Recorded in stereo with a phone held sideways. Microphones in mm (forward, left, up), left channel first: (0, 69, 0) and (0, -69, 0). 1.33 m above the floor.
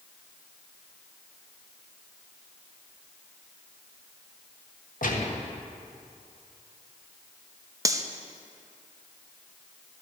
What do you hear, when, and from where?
5.0 s a gunshot: 75° left (ahead or behind), 1.3 m
7.8 s cutlery clinking: 25° right (ahead or behind), 0.6 m